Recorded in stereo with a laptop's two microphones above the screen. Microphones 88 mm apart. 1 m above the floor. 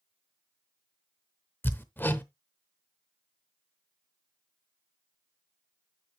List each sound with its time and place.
1.6 s hammering: 25° left (ahead or behind), 0.8 m